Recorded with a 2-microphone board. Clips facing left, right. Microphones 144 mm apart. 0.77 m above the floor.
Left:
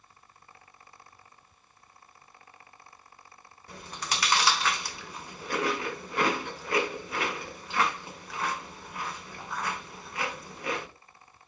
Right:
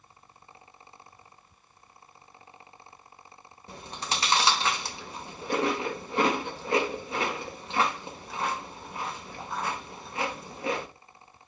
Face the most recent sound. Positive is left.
turn(degrees=-25)  # may be behind; listen again after turning